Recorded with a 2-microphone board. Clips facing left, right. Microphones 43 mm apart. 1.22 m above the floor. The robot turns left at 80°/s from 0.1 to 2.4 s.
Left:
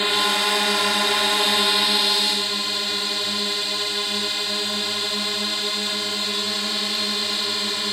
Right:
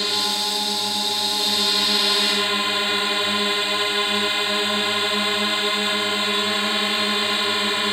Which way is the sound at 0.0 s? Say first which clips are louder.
Left 3 dB; 150° left.